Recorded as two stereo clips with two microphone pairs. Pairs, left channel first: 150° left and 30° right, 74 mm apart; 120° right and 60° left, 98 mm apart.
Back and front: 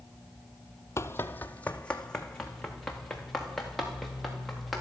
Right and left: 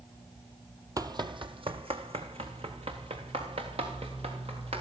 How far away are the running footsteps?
About 0.9 m.